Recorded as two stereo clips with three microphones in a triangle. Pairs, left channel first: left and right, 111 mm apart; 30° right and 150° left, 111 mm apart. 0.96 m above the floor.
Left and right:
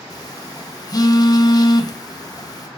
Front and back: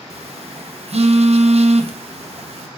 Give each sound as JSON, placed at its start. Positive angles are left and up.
{"t": 0.1, "sound": "a phone buzzing", "azimuth_deg": 140, "distance_m": 0.7}